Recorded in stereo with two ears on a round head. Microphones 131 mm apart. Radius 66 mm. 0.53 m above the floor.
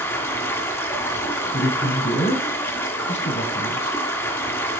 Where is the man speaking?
80° left, 5 m.